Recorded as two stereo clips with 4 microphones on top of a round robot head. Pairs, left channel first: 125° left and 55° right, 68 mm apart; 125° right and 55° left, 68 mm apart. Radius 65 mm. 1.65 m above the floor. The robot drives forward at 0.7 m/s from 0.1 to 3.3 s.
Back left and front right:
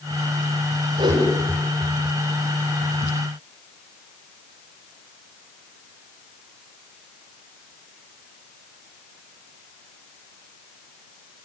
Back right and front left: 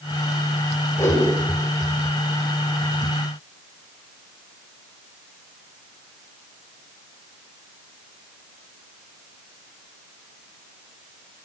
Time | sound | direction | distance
1.0 | a whoosh | 75° right | 7.5 m